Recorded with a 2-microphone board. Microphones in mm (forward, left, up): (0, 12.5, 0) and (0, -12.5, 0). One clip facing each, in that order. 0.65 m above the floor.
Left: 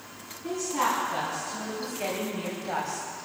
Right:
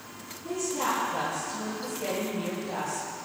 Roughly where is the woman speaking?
Left.